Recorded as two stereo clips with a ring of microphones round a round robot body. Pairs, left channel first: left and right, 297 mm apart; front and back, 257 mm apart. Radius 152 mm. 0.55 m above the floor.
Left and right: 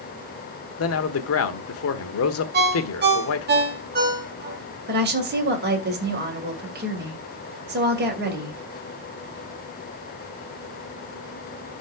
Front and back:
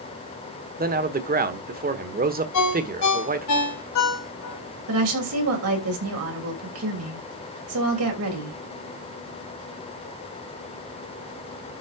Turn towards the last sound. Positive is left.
turn(degrees=-145)